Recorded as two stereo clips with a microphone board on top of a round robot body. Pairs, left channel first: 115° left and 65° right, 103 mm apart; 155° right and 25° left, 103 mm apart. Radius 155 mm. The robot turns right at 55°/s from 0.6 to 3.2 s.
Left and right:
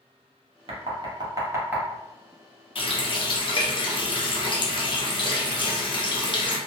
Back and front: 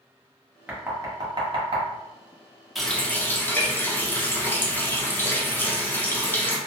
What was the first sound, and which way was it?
Knocking, 55° right.